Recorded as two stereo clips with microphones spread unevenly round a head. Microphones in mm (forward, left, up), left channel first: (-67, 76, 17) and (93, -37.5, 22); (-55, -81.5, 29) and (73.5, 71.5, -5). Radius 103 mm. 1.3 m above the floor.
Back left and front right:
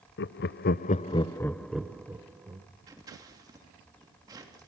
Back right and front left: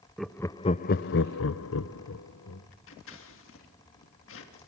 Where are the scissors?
105° right, 3 m.